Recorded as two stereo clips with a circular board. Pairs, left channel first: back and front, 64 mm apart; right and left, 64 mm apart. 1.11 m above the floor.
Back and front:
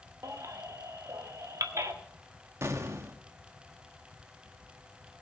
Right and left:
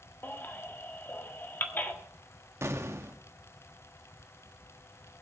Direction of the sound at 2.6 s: 45° left.